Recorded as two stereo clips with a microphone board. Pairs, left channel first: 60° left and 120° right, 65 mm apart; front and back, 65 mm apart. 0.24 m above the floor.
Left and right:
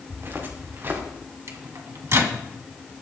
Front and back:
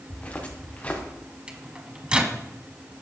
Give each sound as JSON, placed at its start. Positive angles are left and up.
{"t": 0.1, "sound": "footsteps", "azimuth_deg": -65, "distance_m": 3.5}
{"t": 1.5, "sound": "a microwave", "azimuth_deg": -115, "distance_m": 1.8}